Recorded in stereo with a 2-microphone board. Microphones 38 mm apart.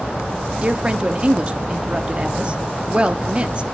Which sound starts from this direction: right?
A woman speaking, at 0.6 s.